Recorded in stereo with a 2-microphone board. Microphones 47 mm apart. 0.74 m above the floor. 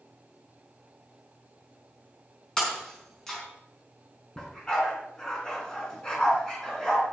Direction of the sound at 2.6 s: 10° left (ahead or behind).